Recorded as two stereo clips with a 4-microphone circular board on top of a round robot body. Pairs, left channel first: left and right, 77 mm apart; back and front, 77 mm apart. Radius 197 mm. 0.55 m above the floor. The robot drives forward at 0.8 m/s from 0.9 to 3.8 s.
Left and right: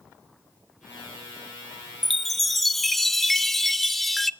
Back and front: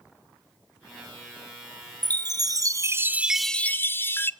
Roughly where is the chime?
Ahead.